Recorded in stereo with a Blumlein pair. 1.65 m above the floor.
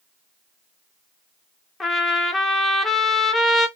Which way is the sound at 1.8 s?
15° left.